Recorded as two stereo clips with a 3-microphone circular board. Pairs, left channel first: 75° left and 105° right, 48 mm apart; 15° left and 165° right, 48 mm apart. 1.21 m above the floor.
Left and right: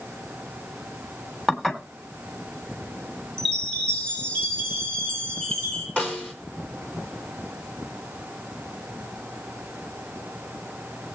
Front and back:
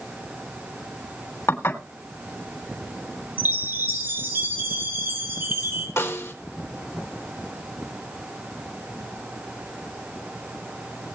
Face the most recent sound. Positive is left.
turn(degrees=10)